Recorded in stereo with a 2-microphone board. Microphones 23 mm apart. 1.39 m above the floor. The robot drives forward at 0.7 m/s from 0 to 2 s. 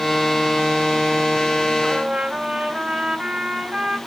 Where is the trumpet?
50° right (ahead or behind), 2.5 m.